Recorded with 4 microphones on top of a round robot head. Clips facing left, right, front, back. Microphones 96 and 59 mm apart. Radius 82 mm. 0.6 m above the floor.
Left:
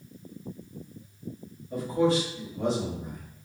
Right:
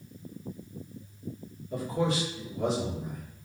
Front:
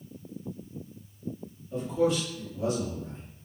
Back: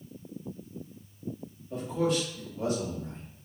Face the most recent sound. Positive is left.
turn(degrees=165)